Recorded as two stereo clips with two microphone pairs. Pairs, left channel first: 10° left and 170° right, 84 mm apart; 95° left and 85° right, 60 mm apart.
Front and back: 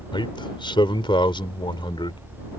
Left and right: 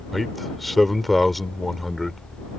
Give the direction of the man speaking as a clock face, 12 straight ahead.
12 o'clock.